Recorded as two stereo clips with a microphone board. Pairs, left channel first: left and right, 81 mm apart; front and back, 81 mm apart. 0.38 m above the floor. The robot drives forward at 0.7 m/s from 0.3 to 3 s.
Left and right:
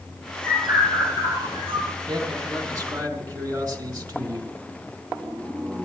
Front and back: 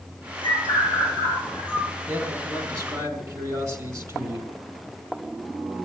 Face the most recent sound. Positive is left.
turn(degrees=-135)